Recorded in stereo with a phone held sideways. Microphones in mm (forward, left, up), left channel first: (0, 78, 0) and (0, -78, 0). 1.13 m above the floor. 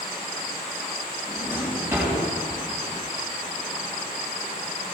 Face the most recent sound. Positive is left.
turn(degrees=-15)  # may be behind; listen again after turning